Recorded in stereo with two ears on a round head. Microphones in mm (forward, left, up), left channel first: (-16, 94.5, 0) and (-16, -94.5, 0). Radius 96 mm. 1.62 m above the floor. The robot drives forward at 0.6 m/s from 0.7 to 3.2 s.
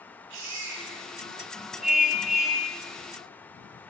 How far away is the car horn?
About 7 m.